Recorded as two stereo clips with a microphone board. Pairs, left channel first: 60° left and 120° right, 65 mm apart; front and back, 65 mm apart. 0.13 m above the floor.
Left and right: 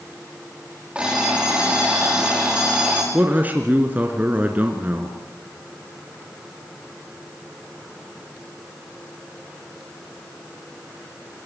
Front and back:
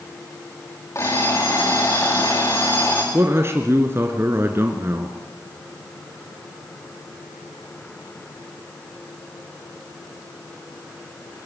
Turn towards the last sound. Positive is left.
turn(degrees=-170)